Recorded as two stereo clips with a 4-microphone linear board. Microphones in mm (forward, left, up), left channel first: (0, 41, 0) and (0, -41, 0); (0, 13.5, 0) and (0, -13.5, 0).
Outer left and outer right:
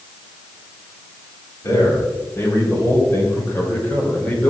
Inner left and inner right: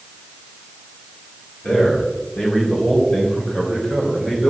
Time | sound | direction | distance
1.6 | a man speaking | 40° left (ahead or behind) | 4.5 m